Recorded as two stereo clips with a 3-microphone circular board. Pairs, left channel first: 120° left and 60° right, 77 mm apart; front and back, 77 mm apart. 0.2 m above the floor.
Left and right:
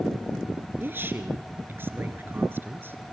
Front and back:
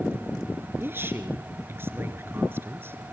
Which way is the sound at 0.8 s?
120° right.